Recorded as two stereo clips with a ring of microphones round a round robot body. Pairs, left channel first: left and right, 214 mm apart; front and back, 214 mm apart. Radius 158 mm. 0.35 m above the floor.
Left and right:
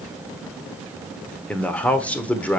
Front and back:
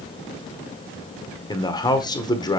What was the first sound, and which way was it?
A man speaking, 20° left.